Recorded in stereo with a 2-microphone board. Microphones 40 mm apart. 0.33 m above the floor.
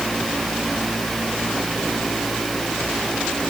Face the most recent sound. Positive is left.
No sound to turn to.